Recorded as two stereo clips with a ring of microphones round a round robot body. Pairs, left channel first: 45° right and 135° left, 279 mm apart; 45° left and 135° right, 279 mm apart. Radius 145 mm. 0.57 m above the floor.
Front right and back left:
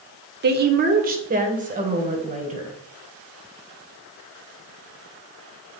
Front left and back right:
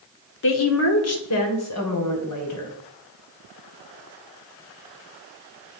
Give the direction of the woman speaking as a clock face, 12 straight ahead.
9 o'clock.